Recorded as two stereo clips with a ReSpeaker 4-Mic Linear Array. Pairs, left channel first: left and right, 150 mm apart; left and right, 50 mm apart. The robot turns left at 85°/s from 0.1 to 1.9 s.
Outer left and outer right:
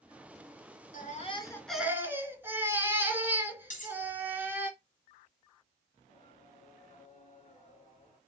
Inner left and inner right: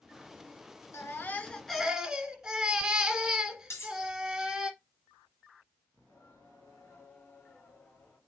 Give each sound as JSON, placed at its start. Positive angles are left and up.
{"t": 0.9, "sound": "a baby crying", "azimuth_deg": 65, "distance_m": 1.4}
{"t": 3.7, "sound": "cutlery clinking", "side_deg": 60, "distance_m": 3.5}
{"t": 6.0, "sound": "singing", "side_deg": 50, "distance_m": 4.0}